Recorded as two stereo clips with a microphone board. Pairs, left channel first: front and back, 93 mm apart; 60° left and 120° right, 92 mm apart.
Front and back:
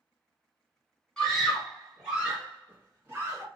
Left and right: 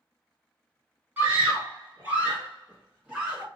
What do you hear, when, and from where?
1.2 s a scream: 70° right, 1.5 m; by 3.5 s 170° left, 1.6 m